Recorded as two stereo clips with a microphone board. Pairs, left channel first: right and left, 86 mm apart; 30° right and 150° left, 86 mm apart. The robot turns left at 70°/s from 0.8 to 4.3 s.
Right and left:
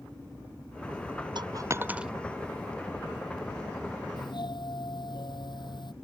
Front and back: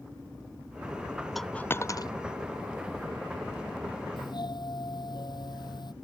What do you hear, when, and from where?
1.4 s a dropped coin: 60° left; by 2.1 s 5° left
4.2 s a doorbell: 50° right; by 5.9 s 60° right